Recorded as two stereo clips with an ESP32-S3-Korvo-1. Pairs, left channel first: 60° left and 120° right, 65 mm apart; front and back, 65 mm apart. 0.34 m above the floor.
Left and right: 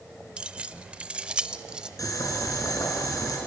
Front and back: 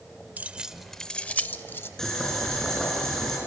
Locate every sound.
0.4 s keys jangling: 170° right, 0.6 m; by 1.9 s 45° right, 0.9 m
2.0 s boiling: 80° left, 4.5 m